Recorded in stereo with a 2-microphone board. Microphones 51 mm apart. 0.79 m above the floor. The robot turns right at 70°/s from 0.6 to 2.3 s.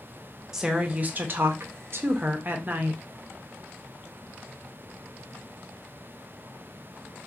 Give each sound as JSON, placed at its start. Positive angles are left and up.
{"t": 0.5, "sound": "a woman speaking", "azimuth_deg": -165, "distance_m": 0.6}